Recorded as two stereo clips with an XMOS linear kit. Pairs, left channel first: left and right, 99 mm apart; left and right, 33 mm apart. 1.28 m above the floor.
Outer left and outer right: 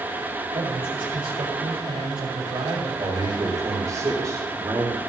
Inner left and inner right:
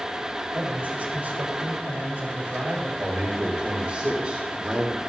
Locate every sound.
0.5 s a man speaking: 55° right (ahead or behind), 4.5 m
3.0 s a man speaking: 40° right (ahead or behind), 4 m